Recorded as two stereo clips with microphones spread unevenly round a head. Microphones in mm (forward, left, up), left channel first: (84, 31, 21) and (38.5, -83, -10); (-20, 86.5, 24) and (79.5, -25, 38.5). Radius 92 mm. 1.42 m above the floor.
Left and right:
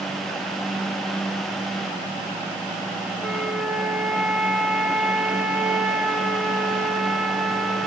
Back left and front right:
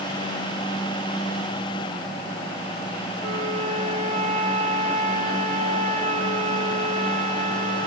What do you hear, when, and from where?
3.2 s a flute: 20° right, 1.4 m